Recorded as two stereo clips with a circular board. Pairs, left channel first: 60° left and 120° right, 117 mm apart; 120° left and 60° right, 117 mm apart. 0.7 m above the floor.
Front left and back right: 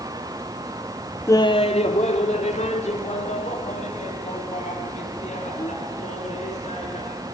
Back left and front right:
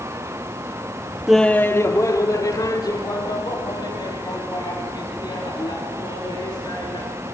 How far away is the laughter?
About 0.5 m.